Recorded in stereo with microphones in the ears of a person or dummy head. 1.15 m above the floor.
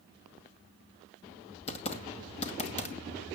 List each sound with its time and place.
1.7 s typing on a keyboard: 35° left (ahead or behind), 2 m